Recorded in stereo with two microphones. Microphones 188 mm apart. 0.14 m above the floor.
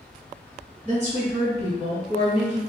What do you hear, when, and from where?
0.8 s a woman speaking: 40° right (ahead or behind), 1.6 m